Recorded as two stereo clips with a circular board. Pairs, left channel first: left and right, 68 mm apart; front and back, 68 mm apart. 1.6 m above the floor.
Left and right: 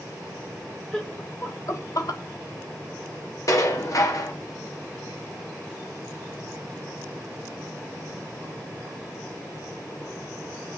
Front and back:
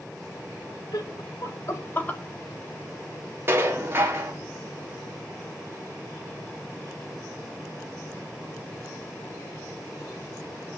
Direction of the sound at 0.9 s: 10° left.